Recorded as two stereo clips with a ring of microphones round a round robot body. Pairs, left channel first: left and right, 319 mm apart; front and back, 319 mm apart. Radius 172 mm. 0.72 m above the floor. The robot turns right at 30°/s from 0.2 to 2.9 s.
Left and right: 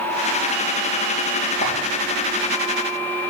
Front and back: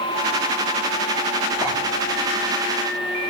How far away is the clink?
About 8 m.